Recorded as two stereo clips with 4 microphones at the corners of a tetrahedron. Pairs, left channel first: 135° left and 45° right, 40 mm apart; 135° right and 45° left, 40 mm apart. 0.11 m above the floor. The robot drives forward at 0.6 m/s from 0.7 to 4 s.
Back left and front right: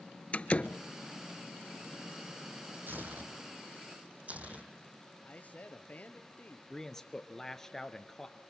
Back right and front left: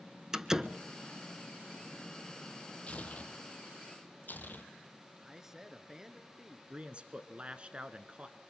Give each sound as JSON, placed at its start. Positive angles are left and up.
{"t": 0.3, "sound": "a door slam", "azimuth_deg": 115, "distance_m": 0.9}
{"t": 2.9, "sound": "tearing paper", "azimuth_deg": -80, "distance_m": 2.0}
{"t": 5.2, "sound": "a man speaking", "azimuth_deg": 120, "distance_m": 1.4}
{"t": 6.7, "sound": "a man speaking", "azimuth_deg": 70, "distance_m": 1.3}